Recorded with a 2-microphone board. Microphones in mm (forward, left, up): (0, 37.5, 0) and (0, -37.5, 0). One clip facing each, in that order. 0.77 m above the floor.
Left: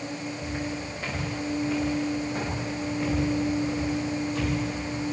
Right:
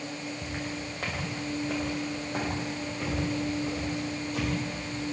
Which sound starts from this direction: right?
Footsteps, at 0.4 s.